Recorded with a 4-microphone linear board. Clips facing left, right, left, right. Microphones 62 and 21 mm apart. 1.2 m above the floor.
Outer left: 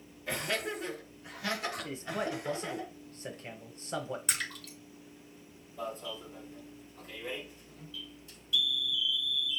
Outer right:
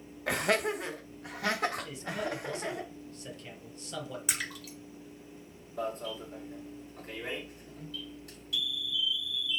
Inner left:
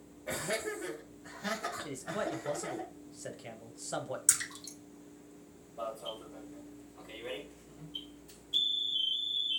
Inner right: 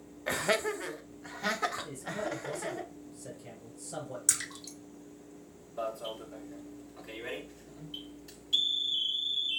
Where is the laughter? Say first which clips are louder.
Outer right 6 dB, inner right 6 dB; 70° right (ahead or behind), 1.2 m; by 2.8 s 75° right (ahead or behind), 2.5 m.